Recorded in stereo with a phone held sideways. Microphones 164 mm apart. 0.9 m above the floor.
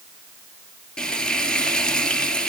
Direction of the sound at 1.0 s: 5° left (ahead or behind).